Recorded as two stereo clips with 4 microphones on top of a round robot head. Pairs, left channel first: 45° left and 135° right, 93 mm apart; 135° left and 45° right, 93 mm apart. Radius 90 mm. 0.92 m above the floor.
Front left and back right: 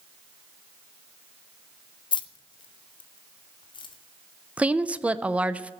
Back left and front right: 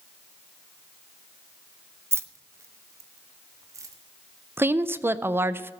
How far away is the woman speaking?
About 0.6 m.